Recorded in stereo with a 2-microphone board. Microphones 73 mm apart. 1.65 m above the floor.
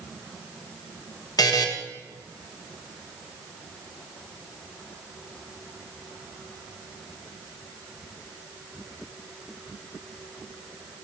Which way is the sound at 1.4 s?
65° left (ahead or behind).